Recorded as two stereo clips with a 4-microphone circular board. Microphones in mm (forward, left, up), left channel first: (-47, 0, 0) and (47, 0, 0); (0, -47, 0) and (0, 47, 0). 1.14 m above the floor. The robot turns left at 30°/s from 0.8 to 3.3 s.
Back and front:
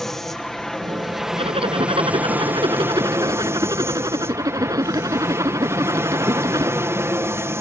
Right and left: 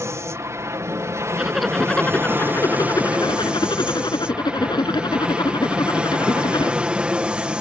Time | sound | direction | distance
0.0 | an aircraft | 95° left | ?
1.4 | a zipper | 10° left | ?